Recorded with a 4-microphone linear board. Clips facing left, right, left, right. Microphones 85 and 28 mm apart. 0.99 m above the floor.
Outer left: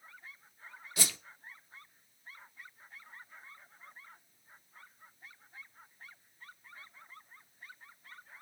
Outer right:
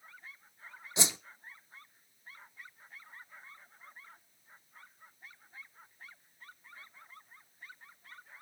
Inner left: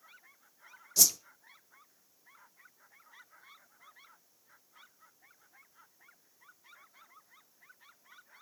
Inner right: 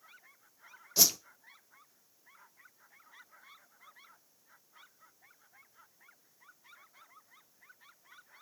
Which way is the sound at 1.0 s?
20° right (ahead or behind).